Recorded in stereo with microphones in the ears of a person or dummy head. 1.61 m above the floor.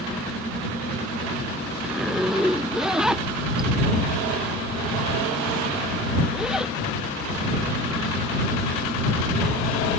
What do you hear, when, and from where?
1.8 s a zipper: 5° right (ahead or behind)